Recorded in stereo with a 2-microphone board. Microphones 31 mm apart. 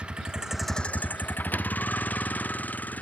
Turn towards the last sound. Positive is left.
turn(degrees=65)  # may be behind; listen again after turning